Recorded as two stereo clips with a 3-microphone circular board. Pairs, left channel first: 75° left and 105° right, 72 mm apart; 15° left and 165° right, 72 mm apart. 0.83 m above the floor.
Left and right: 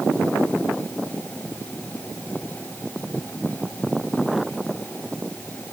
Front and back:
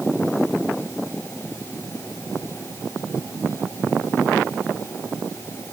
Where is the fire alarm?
I don't hear a fire alarm.